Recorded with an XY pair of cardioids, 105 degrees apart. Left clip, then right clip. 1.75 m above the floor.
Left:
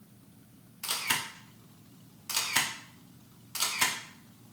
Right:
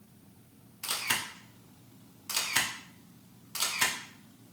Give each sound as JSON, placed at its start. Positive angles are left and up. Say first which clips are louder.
{"t": 0.8, "sound": "a camera shutter", "louder": "even", "azimuth_deg": 0, "distance_m": 0.8}